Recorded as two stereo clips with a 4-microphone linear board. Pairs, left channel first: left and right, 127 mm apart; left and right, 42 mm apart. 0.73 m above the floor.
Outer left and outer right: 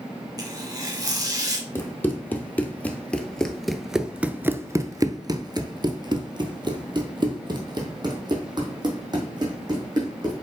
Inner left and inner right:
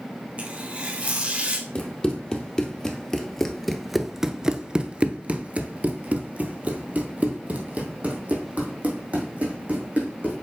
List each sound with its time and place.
0.4 s tearing paper: 30° right (ahead or behind), 1.5 m
1.8 s running footsteps: 20° left (ahead or behind), 1.7 m; by 10.3 s 35° right (ahead or behind), 3 m